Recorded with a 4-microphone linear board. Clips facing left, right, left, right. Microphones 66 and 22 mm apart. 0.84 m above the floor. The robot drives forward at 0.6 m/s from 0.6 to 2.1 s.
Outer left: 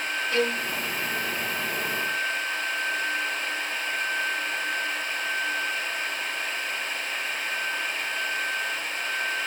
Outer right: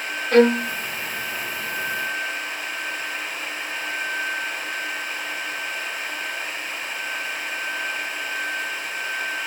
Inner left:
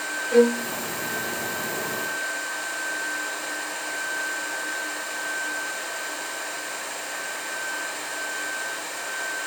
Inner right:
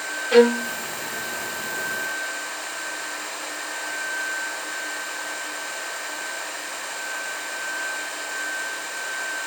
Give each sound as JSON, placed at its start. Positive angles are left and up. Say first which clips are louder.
{"t": 0.3, "sound": "a violin", "louder": "outer right 12 dB, inner right 3 dB", "side_deg": -55, "distance_m": 0.7}